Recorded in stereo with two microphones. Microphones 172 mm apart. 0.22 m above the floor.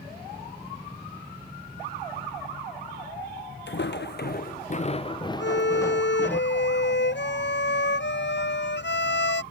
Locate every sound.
3.7 s footsteps: 80° left; by 6.4 s 10° left (ahead or behind)
5.4 s a violin: 80° left